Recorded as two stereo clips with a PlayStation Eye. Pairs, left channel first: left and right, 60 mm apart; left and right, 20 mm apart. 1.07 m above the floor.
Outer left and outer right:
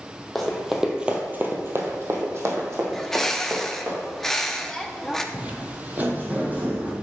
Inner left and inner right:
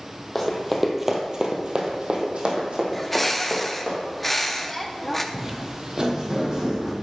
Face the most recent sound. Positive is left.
turn(degrees=-25)  # may be behind; listen again after turning